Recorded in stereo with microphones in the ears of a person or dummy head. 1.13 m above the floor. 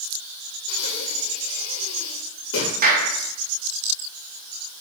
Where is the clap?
45° right (ahead or behind), 1.4 m.